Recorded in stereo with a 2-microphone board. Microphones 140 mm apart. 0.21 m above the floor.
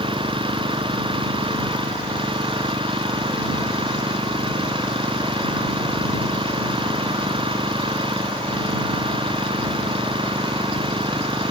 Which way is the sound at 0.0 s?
35° right (ahead or behind).